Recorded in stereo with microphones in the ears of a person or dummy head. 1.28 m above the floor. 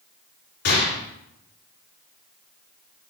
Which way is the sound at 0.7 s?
55° left (ahead or behind).